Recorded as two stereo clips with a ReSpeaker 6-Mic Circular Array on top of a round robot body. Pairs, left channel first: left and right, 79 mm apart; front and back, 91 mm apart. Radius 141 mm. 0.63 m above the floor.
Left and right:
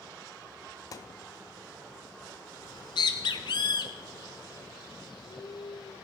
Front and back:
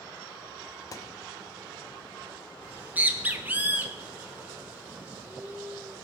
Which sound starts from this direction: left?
A bird, at 2.6 s.